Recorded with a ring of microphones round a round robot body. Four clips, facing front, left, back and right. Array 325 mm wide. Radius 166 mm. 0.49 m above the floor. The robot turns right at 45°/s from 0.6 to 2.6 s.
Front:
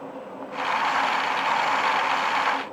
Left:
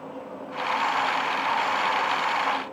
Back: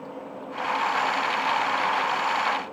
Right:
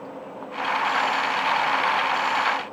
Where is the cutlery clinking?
No cutlery clinking in this recording.